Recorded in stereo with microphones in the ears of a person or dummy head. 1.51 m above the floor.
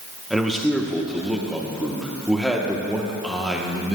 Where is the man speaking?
Centre (ahead or behind), 1.0 m.